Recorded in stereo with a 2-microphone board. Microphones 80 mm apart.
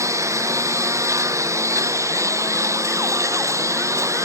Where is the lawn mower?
40° right (ahead or behind).